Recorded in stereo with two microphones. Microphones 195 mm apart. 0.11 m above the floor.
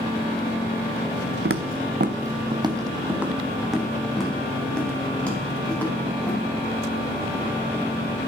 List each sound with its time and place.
1.4 s footsteps: 80° right, 0.5 m; by 6.4 s 10° left (ahead or behind), 3.5 m